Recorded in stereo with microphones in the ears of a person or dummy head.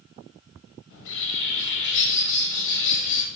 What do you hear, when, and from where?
0.9 s a bird: 70° left (ahead or behind), 0.9 m